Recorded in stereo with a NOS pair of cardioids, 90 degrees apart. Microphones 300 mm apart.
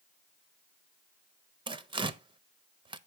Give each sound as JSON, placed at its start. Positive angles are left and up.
{"t": 1.7, "sound": "tearing paper", "azimuth_deg": -15, "distance_m": 0.6}